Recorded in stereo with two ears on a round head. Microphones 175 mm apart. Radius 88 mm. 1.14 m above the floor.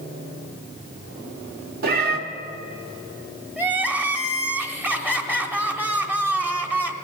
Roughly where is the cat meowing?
Right.